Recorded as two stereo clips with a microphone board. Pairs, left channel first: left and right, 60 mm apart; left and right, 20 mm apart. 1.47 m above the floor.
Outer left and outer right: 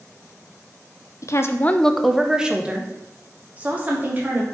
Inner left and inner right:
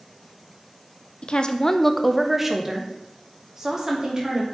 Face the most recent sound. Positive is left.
turn(degrees=-30)  # may be behind; listen again after turning